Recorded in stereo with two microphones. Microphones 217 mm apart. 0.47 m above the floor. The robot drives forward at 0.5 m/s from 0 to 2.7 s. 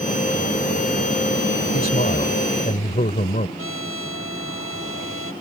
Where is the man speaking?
45° left (ahead or behind); by 3.5 s 40° left (ahead or behind).